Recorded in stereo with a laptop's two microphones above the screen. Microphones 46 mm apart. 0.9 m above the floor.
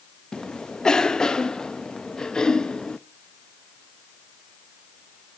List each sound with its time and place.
0.3 s a cough: 15° left (ahead or behind), 1.0 m